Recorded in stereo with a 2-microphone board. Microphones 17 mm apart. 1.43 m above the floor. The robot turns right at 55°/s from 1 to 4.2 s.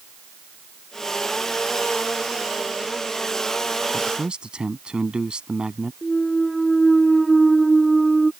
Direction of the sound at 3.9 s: 75° right (ahead or behind).